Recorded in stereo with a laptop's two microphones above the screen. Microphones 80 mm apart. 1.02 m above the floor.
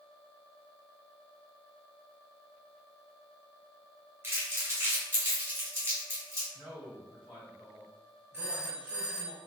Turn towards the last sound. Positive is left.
turn(degrees=-20)  # may be behind; listen again after turning